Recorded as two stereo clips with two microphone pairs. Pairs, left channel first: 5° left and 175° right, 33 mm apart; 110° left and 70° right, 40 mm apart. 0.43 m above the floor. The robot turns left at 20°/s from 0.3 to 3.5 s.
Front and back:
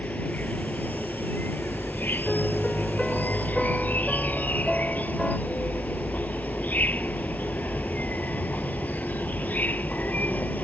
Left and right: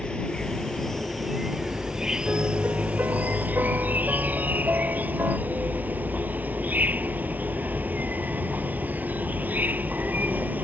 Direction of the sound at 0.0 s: 45° left.